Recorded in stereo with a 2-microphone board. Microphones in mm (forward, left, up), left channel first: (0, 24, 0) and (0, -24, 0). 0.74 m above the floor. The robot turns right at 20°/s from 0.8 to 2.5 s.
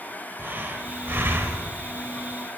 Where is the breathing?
45° right (ahead or behind), 0.8 m; by 1.7 s 60° right (ahead or behind), 0.8 m.